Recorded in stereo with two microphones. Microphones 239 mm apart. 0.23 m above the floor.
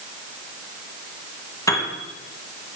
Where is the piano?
15° left (ahead or behind), 1.8 m.